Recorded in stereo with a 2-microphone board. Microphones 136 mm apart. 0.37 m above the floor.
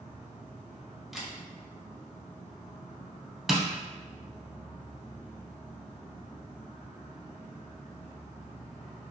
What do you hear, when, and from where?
0.0 s an insect: 50° left (ahead or behind), 0.8 m
1.1 s a camera shutter: centre (ahead or behind), 0.6 m
3.5 s tapping: centre (ahead or behind), 0.6 m